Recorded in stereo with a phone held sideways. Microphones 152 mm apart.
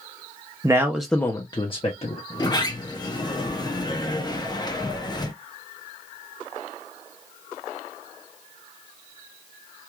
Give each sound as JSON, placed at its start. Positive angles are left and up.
{"t": 0.6, "sound": "a man speaking", "side_deg": -25, "distance_m": 0.5}
{"t": 2.3, "sound": "a sliding door", "side_deg": 25, "distance_m": 0.5}